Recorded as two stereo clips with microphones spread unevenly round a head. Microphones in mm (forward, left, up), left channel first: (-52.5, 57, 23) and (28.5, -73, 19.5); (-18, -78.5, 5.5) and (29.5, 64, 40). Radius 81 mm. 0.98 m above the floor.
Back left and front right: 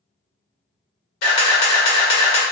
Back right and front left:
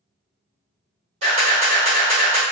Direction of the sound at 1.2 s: 120° left.